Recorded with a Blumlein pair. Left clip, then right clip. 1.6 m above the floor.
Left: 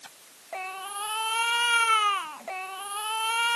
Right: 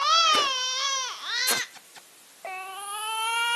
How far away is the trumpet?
I don't hear a trumpet.